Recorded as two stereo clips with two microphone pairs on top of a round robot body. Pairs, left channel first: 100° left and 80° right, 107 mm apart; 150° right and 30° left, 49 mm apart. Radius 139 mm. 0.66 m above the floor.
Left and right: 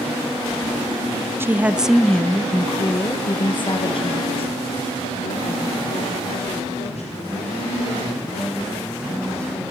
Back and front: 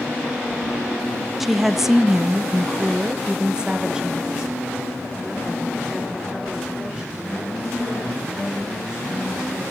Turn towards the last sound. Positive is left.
turn(degrees=105)